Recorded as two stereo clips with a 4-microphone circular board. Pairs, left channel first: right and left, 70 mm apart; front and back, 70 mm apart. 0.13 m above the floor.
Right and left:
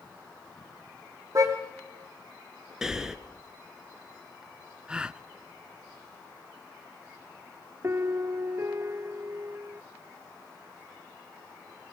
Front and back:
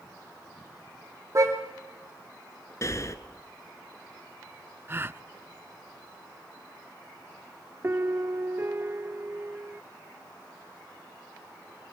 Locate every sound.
1.4 s a car horn: 135° left, 3 m
2.8 s breathing: 10° left, 1.3 m
4.9 s a gasp: 160° left, 0.6 m
7.8 s a piano: 130° left, 0.5 m